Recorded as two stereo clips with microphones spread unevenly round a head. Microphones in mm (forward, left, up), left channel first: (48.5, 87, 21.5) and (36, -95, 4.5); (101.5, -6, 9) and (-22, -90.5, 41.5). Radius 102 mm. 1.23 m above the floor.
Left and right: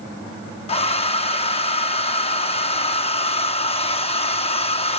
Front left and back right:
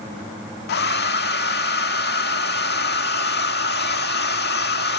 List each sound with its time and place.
0.7 s a hair dryer: 40° left